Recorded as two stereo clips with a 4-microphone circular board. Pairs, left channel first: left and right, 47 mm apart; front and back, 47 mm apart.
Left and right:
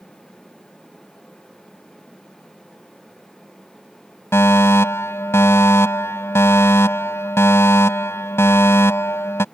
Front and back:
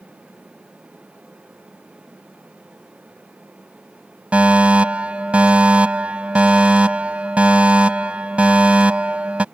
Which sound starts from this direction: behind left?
A fire alarm, at 4.3 s.